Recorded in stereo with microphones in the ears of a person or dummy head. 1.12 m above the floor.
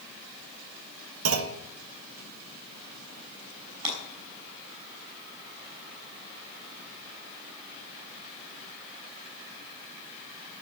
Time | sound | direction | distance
1.2 | a clunk | 80° right | 0.9 m
3.8 | breaking glass | 30° right (ahead or behind) | 6 m